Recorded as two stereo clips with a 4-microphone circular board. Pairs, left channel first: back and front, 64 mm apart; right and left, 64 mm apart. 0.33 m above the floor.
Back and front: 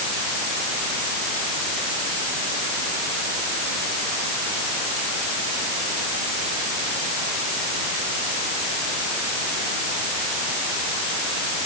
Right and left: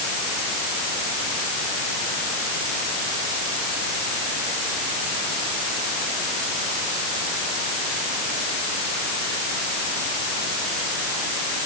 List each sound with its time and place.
Only background noise.